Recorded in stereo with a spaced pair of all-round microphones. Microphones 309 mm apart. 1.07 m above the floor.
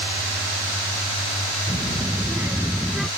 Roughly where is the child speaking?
Centre.